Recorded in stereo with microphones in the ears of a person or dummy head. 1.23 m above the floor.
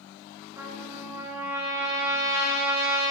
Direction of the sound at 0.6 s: 15° right (ahead or behind).